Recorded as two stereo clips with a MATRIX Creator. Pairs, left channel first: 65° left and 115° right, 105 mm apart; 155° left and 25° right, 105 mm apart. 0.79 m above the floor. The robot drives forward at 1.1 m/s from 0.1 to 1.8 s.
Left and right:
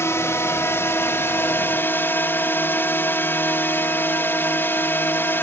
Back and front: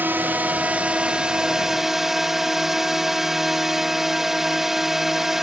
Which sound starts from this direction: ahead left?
A drone, at 0.0 s.